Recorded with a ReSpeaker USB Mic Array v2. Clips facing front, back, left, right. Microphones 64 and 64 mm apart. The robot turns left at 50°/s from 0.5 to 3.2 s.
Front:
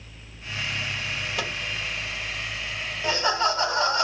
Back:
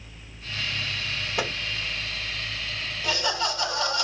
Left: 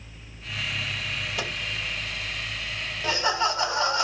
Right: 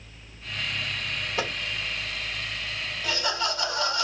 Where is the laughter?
50° left, 1.1 m; by 4.0 s 40° left, 1.1 m.